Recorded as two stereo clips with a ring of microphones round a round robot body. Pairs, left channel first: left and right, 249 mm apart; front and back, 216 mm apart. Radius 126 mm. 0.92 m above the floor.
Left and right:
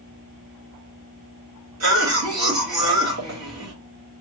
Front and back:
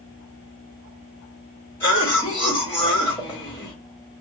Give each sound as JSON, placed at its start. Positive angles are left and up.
{"t": 1.8, "sound": "a cough", "azimuth_deg": -80, "distance_m": 1.9}